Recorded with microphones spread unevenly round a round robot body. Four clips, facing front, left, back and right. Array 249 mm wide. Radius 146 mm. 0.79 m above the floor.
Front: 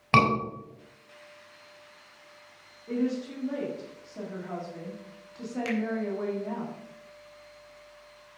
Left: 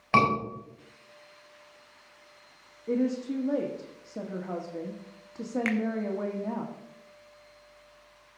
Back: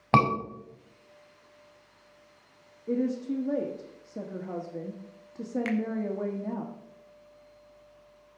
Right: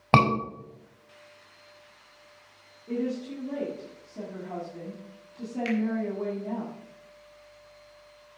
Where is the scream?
115° right, 4.5 m.